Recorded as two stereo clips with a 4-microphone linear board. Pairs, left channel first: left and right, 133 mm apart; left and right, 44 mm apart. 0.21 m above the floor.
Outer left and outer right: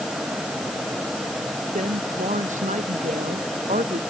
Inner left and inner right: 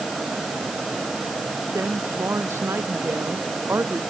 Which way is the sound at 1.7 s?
70° right (ahead or behind).